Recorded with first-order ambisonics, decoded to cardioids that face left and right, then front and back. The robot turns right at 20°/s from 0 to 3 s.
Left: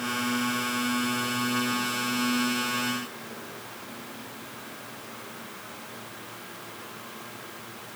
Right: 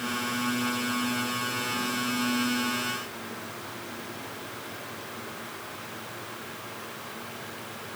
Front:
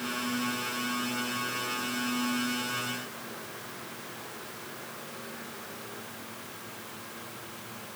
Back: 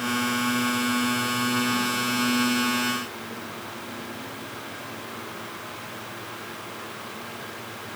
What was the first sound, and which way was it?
Only background noise.